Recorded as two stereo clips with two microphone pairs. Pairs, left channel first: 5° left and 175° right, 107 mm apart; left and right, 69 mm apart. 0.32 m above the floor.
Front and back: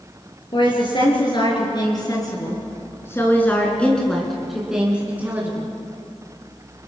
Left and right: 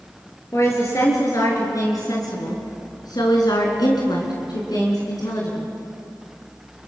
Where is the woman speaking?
40° left, 6 m; by 5.7 s 120° left, 4.5 m.